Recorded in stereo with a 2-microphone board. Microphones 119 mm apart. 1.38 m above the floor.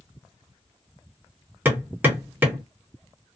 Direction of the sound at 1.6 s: 15° right (ahead or behind).